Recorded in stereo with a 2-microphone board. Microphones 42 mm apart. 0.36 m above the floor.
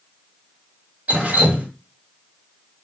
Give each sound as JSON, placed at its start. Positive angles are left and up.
{"t": 1.1, "sound": "dripping", "side_deg": -35, "distance_m": 1.5}